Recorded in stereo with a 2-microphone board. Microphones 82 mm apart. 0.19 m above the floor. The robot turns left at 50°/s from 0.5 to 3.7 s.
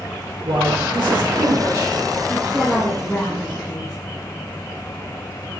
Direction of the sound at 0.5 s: 70° right.